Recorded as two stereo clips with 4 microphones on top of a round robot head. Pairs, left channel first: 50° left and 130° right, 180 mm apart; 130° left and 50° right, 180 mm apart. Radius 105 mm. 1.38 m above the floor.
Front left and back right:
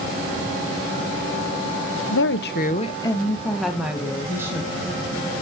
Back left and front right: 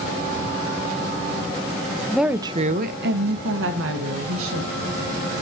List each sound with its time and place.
2.1 s a woman speaking: 40° left, 0.6 m; by 4.8 s 55° right, 1.9 m